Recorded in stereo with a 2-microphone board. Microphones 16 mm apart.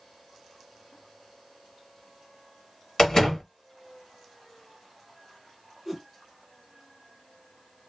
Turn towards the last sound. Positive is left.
turn(degrees=0)  # may be behind; listen again after turning